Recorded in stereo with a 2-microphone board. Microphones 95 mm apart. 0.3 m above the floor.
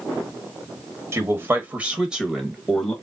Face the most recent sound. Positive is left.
turn(degrees=5)  # may be behind; listen again after turning